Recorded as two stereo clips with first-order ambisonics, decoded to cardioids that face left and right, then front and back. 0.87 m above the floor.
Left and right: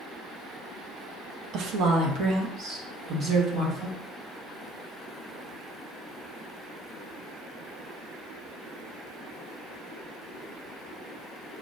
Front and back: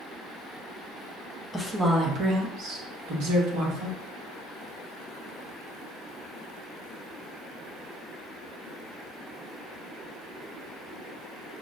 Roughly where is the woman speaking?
Right.